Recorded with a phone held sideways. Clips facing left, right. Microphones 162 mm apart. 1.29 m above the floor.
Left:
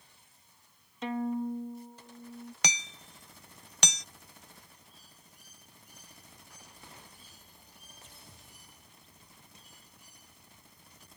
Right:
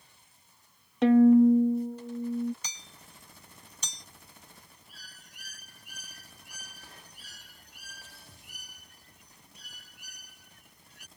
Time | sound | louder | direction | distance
1.0 | a violin | right 15 dB | 70° right (ahead or behind) | ?
2.6 | hammering | left 11 dB | 80° left | ?
4.9 | a bird | right 2 dB | 85° right | ?